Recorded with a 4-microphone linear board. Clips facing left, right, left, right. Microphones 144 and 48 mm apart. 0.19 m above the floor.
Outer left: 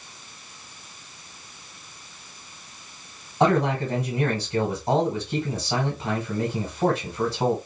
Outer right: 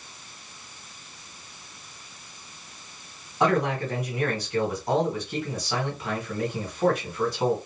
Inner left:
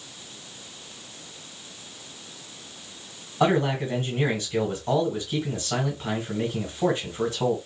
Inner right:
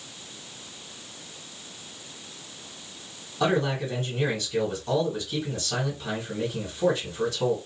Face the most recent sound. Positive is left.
turn(degrees=30)  # may be behind; listen again after turning